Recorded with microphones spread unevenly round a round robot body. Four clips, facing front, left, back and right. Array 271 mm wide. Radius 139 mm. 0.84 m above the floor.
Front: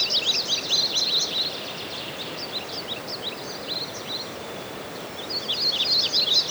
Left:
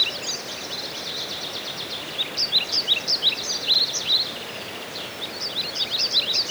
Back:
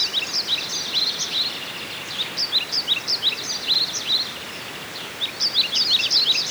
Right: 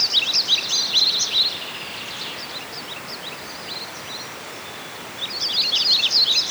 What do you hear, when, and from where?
Only background noise.